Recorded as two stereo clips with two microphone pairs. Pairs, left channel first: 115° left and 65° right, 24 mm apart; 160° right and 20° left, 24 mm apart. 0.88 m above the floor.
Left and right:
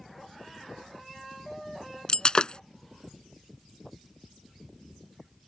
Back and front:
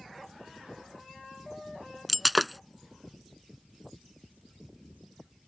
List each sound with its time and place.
2.1 s breaking glass: 105° left